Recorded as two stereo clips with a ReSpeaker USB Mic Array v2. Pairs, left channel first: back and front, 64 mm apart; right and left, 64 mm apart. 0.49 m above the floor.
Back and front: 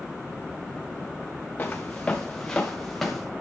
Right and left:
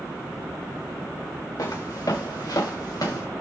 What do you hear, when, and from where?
1.6 s footsteps: 115° right, 1.9 m; by 3.3 s 95° right, 2.5 m